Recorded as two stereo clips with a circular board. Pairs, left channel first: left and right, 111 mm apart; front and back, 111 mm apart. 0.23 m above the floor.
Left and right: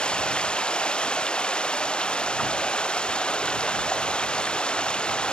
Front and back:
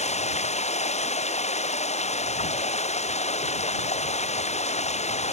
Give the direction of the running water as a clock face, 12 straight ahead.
12 o'clock.